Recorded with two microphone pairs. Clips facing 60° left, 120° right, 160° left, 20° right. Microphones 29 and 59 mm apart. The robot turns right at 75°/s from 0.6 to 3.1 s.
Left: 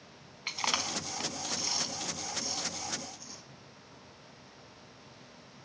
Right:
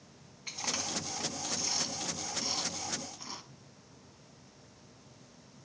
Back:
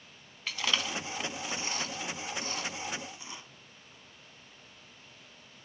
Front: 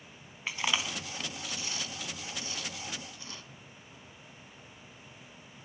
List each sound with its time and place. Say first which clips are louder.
0.5 s chewing: left 5 dB, even; 40° left, 1.4 m; by 3.4 s 130° right, 1.4 m